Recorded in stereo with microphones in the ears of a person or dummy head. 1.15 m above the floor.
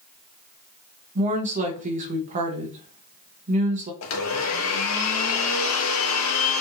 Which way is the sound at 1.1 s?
40° right (ahead or behind).